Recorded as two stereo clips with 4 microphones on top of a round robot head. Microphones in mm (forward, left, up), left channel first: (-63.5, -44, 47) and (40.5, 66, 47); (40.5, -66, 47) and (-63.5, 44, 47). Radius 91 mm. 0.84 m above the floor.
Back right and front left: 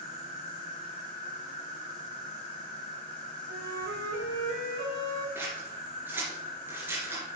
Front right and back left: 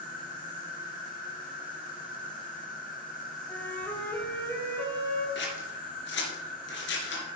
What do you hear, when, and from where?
0.0 s an insect: 80° right, 6 m
3.5 s a flute: 30° left, 2.5 m
5.3 s scissors: 30° right, 3 m